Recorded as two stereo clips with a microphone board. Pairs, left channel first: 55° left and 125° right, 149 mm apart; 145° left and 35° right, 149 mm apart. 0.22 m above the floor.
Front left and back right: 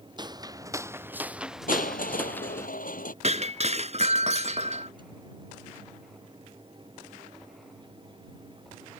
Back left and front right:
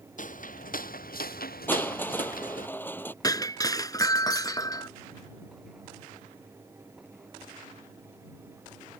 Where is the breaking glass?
155° right.